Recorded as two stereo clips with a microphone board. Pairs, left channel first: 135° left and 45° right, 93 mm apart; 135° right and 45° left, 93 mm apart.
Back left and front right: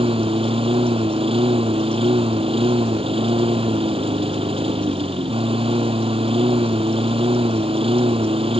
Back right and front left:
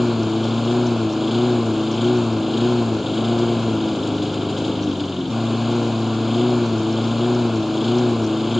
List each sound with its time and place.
0.0 s a lawn mower: 45° right